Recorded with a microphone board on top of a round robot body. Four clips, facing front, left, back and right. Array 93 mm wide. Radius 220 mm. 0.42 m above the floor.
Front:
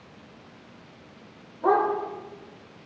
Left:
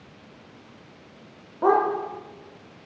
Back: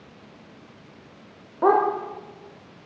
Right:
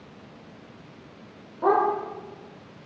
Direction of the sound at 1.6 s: 160° left.